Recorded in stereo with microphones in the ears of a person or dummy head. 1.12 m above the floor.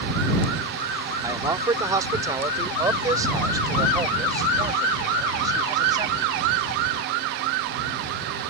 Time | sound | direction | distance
1.2 | a man speaking | 25° right (ahead or behind) | ?